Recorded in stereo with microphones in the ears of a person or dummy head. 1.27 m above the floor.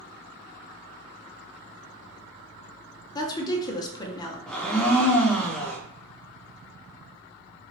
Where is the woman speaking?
30° left (ahead or behind), 0.6 m.